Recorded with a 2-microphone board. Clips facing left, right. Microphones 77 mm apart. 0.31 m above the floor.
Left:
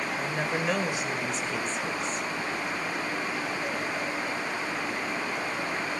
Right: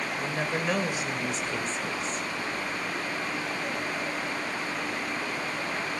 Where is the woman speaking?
5° left (ahead or behind), 1.0 m.